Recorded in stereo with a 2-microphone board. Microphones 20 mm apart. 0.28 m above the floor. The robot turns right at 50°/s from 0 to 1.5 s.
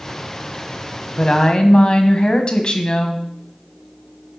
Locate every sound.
1.2 s a woman speaking: 30° left (ahead or behind), 1.6 m; by 3.2 s 40° left (ahead or behind), 1.6 m